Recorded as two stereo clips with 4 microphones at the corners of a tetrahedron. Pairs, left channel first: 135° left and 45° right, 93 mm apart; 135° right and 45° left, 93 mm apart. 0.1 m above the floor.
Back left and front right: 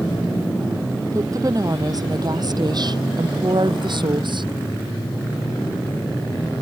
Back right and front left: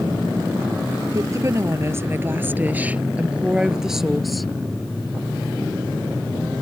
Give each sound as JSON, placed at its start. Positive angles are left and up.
{"t": 1.1, "sound": "a woman speaking", "azimuth_deg": 0}